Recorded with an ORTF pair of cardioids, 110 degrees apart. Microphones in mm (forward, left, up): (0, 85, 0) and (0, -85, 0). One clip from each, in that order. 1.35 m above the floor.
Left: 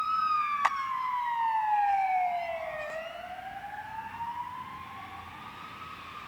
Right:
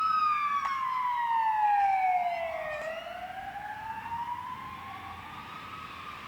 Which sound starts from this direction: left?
A clap, at 0.6 s.